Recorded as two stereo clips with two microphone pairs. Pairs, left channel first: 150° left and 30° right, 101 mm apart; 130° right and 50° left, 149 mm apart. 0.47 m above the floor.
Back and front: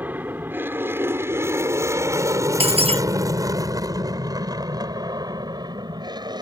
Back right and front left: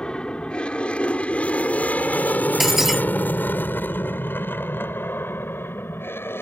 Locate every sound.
0.0 s an aircraft: 55° right; by 6.4 s 60° right
2.6 s breaking glass: 35° right